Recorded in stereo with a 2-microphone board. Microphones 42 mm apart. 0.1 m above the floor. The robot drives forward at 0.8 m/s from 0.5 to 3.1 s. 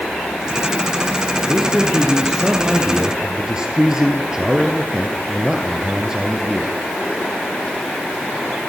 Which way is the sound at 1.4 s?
10° right (ahead or behind).